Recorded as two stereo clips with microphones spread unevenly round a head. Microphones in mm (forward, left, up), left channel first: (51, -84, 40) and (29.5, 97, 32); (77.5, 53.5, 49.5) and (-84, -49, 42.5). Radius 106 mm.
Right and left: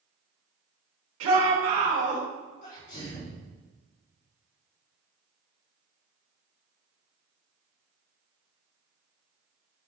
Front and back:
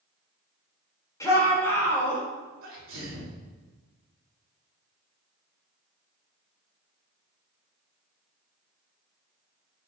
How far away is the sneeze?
About 4 m.